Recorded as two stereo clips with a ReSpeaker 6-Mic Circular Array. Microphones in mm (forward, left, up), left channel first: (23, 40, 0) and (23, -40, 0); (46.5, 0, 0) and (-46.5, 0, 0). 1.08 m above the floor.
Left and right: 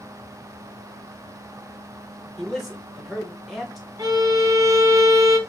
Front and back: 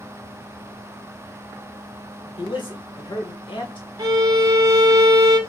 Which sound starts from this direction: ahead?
A man speaking, at 2.4 s.